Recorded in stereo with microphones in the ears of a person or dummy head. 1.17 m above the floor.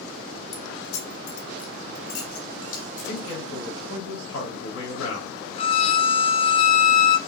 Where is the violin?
30° left (ahead or behind), 0.6 m.